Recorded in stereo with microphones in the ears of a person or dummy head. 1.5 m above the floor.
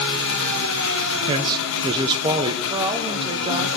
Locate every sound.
0.0 s an engine running: 70° left (ahead or behind), 1.1 m
1.3 s a man speaking: 20° right (ahead or behind), 0.9 m
2.7 s a woman speaking: 30° right (ahead or behind), 1.0 m